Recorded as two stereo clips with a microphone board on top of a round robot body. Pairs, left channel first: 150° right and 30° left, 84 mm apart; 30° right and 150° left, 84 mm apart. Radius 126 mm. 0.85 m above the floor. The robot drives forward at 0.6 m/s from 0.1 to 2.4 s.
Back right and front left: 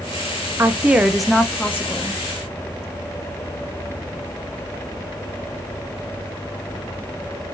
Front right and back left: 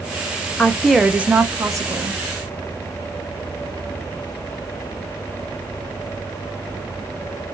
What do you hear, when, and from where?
0.6 s a woman speaking: 30° left, 0.7 m; by 2.2 s 165° left, 1.0 m